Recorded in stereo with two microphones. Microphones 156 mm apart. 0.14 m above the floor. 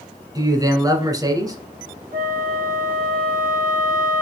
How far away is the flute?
About 2.5 m.